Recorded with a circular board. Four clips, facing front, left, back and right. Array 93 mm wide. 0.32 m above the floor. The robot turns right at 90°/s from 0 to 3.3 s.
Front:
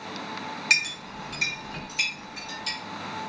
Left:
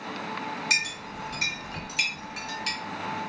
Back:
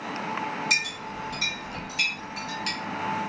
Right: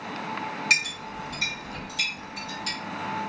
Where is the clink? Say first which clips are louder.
Right 2 dB, even; 35° right, 1.7 m; by 2.8 s 150° left, 1.7 m.